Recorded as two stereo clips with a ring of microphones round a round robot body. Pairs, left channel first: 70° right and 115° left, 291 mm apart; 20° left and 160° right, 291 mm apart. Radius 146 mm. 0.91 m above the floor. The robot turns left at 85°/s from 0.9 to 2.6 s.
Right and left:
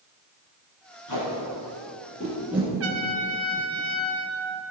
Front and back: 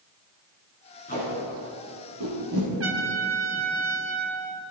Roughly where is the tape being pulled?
Ahead right.